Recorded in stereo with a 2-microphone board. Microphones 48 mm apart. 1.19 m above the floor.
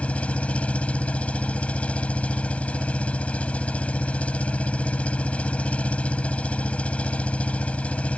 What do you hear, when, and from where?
0.0 s an engine running: 25° left (ahead or behind)